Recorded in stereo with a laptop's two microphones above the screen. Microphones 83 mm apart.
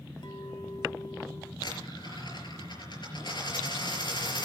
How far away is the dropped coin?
About 4.5 m.